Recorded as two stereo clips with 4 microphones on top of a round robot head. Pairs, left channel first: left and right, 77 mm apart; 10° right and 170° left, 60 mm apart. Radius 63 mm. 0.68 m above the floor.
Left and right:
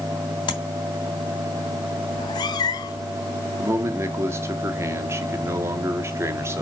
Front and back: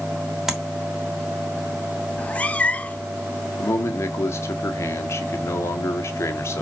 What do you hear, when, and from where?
0.5 s tapping: 90° left, 3 m
2.1 s a cat meowing: 55° left, 1.0 m
3.6 s a man speaking: 40° right, 1.6 m